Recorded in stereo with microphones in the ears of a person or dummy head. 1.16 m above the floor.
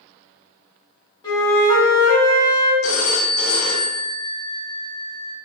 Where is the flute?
30° left (ahead or behind), 1.8 m.